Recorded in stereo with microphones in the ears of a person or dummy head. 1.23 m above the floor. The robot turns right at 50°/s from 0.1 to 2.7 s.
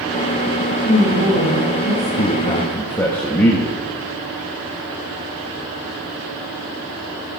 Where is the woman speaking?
135° left, 5.5 m; by 2.1 s 165° right, 5.5 m.